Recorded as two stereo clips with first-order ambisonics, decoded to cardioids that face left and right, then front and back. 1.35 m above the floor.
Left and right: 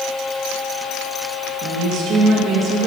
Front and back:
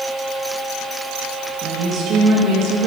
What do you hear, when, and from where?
1.6 s a woman speaking: 130° right, 1.6 m